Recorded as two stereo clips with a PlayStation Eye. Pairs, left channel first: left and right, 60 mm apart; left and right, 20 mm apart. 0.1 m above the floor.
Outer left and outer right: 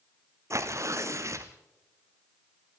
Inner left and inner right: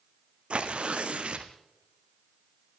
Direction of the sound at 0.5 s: 55° right (ahead or behind).